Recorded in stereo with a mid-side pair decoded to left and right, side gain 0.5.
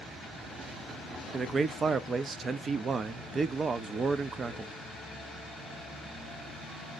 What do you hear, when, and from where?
1.3 s a man speaking: 40° right, 0.6 m